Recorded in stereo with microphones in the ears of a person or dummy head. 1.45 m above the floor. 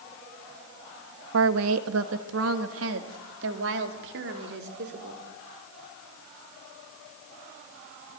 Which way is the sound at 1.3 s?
70° right (ahead or behind).